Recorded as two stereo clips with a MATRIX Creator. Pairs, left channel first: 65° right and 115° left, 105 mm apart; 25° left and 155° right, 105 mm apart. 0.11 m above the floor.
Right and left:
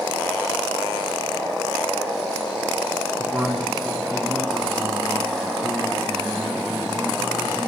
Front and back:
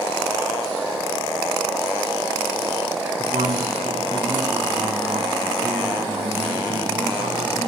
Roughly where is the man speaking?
Behind.